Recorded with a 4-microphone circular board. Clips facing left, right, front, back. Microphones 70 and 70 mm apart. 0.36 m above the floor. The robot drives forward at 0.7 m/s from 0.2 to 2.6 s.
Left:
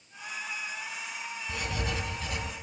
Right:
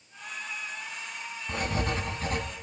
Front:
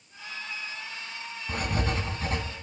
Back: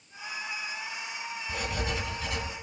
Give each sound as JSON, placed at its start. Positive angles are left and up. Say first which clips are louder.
{"t": 1.5, "sound": "writing", "louder": "right 5 dB, front 4 dB", "azimuth_deg": -40, "distance_m": 3.0}